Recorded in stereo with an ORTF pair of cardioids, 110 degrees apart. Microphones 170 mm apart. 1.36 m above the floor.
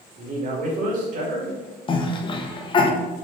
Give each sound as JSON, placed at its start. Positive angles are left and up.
{"t": 0.2, "sound": "a man speaking", "azimuth_deg": -50, "distance_m": 2.0}
{"t": 1.9, "sound": "a cough", "azimuth_deg": 30, "distance_m": 0.9}